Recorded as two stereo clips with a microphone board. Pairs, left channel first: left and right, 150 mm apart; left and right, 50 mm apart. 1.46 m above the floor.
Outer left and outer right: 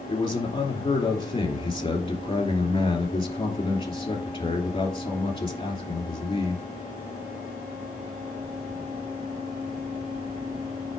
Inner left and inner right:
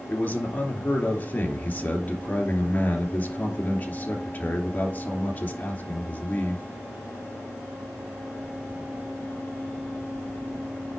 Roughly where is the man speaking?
Left.